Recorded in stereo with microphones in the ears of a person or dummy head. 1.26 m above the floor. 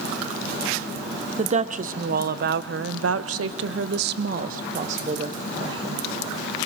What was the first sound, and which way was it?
A woman speaking, 45° right (ahead or behind).